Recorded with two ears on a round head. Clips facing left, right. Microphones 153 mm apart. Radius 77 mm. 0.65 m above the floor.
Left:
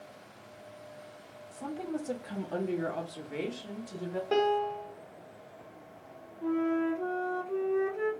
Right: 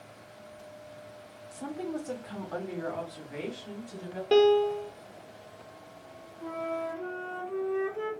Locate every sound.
1.5 s a woman speaking: 15° right (ahead or behind), 0.7 m; by 4.2 s 65° left (ahead or behind), 1.3 m
4.3 s a piano: 40° right (ahead or behind), 0.8 m
6.4 s a flute: 15° left (ahead or behind), 1.5 m